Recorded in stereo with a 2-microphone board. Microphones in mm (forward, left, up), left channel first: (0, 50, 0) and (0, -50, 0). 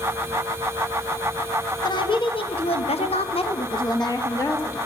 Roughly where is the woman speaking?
Left.